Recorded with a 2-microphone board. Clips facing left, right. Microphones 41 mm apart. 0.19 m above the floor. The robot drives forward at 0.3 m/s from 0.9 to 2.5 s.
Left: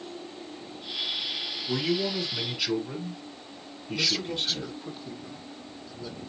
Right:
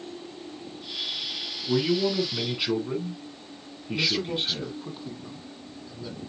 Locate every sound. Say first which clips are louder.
1.6 s a man speaking: right 4 dB; 15° right (ahead or behind), 2.0 m
3.9 s a man speaking: right 2 dB; 15° right (ahead or behind), 1.6 m